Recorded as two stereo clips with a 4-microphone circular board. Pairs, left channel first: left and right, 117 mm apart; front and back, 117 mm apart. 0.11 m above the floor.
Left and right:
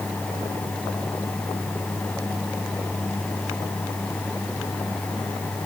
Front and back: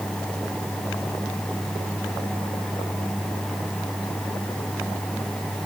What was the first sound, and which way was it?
Only background noise.